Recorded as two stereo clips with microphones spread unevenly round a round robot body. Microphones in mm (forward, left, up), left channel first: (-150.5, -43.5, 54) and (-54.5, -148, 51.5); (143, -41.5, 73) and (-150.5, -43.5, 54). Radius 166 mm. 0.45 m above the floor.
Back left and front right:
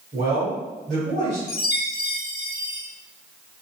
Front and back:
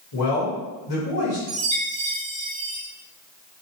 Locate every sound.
0.1 s a man speaking: 10° right, 1.7 m
1.5 s a chime: 110° left, 1.6 m